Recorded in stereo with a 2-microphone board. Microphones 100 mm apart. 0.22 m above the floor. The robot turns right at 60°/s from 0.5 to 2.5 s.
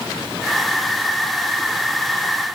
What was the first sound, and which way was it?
Only background noise.